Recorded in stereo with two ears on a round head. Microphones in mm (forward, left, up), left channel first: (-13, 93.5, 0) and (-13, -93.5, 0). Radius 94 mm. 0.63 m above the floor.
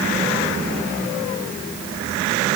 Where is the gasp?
No gasp in this recording.